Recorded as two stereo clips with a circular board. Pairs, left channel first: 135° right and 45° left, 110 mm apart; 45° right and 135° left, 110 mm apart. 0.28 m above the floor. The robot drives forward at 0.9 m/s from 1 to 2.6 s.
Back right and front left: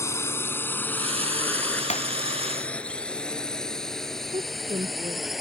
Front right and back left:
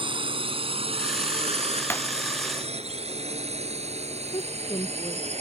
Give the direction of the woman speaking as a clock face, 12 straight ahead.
12 o'clock.